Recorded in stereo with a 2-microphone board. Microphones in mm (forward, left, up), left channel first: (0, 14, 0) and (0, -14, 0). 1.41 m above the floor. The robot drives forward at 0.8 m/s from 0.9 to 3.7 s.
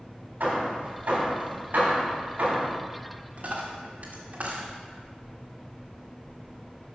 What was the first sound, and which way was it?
Hammering, 75° right (ahead or behind).